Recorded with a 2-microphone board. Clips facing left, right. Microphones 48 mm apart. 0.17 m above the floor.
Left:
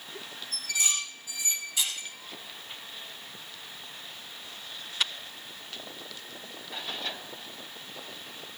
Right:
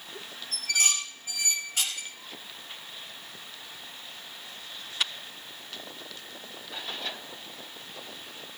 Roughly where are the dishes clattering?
Right.